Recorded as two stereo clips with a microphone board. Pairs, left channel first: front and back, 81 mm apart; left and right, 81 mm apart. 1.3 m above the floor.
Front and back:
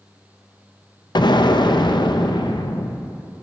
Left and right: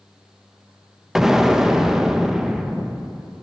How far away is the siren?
I don't hear a siren.